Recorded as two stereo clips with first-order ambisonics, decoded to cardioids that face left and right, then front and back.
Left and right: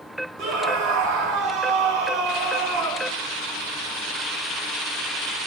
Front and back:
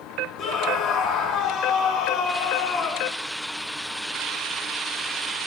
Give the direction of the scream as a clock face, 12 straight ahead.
2 o'clock.